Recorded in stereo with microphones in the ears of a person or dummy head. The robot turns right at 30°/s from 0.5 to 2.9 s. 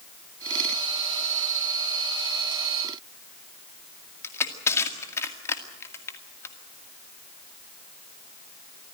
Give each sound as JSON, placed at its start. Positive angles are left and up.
{"t": 4.2, "sound": "crushing", "side_deg": 15, "distance_m": 2.0}